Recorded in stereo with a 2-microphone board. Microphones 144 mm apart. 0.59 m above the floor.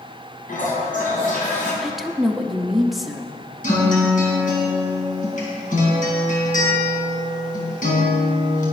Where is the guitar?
60° left (ahead or behind), 3.5 m.